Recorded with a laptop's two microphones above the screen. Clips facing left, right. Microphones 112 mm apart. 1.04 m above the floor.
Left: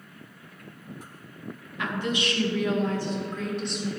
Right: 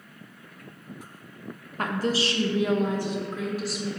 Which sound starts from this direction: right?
A woman speaking, at 1.8 s.